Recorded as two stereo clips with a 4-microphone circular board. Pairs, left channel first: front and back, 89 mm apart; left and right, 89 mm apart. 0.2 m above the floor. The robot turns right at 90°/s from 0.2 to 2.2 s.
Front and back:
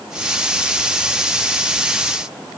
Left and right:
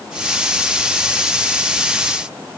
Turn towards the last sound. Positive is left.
No sound to turn to.